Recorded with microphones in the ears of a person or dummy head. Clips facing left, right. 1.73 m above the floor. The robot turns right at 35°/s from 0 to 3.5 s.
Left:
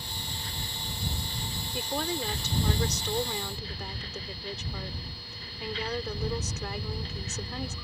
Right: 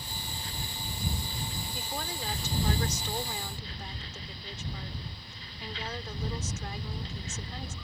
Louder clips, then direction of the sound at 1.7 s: Left 9 dB; 60° left.